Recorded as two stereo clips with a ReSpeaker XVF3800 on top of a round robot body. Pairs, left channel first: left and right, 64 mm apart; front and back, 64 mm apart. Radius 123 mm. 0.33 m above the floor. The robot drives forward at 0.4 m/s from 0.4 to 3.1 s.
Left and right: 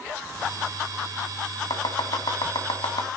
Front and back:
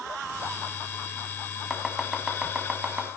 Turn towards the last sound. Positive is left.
turn(degrees=110)